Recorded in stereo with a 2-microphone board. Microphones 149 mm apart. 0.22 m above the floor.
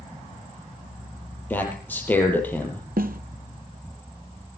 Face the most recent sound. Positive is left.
turn(degrees=-90)